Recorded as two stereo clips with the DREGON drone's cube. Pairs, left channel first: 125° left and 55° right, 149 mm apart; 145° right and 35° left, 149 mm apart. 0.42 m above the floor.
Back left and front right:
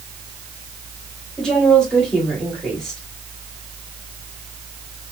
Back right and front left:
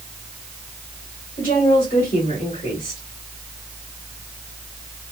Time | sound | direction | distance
1.4 | a woman speaking | 155° right | 2.5 m